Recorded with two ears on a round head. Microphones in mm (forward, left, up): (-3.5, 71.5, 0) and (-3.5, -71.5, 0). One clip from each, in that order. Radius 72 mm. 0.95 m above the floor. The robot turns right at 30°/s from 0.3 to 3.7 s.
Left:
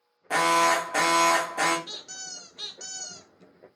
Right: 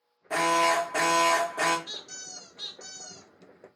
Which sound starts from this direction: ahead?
A squeak, at 1.9 s.